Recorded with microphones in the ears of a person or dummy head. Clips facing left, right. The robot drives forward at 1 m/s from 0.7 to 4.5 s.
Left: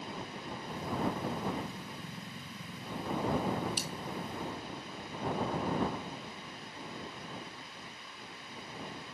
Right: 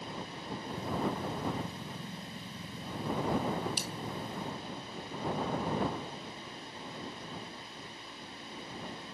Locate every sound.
3.8 s a dropped coin: 35° right (ahead or behind), 0.7 m; by 3.9 s 30° right (ahead or behind), 0.8 m